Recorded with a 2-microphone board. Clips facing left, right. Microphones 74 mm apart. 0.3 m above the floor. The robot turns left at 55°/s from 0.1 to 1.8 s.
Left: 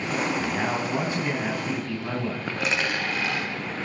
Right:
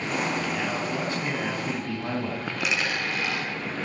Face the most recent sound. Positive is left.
turn(degrees=35)  # may be behind; listen again after turning